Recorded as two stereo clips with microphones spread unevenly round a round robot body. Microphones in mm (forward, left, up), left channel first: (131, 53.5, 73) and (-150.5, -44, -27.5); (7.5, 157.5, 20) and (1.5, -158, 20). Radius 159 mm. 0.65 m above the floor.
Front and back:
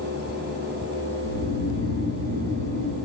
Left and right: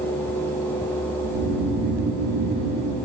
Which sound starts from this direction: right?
Snoring, at 1.2 s.